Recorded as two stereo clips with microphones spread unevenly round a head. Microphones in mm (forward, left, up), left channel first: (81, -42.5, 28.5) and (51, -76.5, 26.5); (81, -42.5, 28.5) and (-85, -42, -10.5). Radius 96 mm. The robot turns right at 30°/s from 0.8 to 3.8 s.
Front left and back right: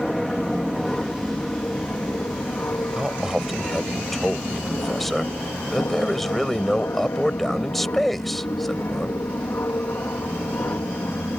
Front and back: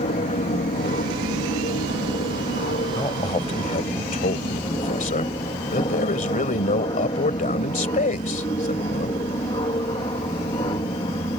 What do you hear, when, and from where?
0.0 s an aircraft: 30° right; by 11.4 s 60° left
3.0 s a man speaking: 65° right; by 9.2 s 35° right